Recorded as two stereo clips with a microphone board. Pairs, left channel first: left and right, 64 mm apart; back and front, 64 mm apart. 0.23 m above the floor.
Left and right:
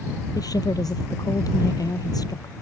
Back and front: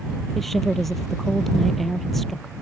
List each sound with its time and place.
0.3 s a woman speaking: 95° left